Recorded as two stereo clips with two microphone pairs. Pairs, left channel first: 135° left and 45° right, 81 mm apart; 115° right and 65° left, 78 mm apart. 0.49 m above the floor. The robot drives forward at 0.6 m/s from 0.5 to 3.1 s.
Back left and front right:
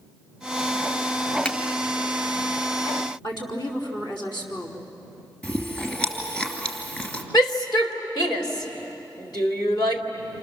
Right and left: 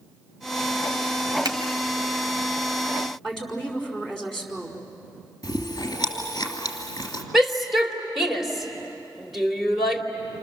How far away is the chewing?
About 3 m.